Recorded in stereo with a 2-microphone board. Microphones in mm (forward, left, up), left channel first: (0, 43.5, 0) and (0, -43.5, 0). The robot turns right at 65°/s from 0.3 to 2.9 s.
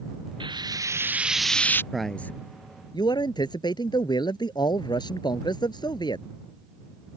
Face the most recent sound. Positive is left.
turn(degrees=60)